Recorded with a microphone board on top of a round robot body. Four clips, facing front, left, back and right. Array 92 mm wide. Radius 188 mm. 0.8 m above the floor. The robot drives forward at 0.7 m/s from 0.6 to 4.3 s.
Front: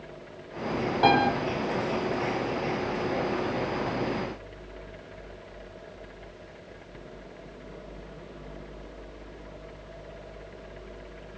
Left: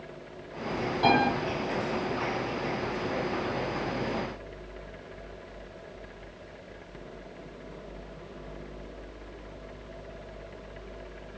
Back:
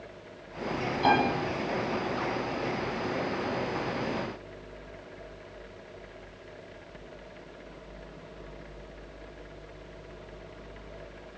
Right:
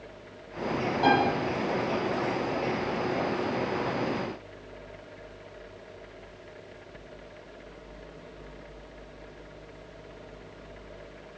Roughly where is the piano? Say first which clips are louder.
Even, front 3 dB; ahead.